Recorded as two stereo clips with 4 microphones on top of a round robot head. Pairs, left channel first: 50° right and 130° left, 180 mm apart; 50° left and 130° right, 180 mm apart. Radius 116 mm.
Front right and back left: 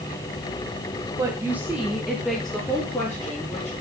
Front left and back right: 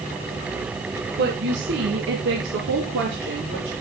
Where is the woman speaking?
160° right, 1.7 m; by 3.7 s 135° right, 4.5 m.